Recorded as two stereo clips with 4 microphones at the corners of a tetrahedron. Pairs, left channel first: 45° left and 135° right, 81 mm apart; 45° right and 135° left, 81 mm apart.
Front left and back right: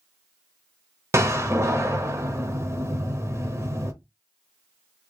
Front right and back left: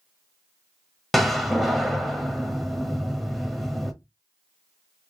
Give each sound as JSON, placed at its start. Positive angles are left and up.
{"t": 1.1, "sound": "a door slam", "azimuth_deg": -135, "distance_m": 0.8}